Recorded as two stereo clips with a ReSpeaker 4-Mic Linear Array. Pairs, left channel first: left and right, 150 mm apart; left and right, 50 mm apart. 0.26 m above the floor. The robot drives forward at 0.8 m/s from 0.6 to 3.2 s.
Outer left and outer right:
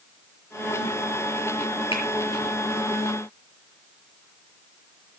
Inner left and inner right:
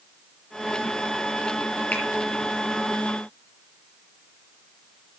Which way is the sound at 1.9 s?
35° left (ahead or behind).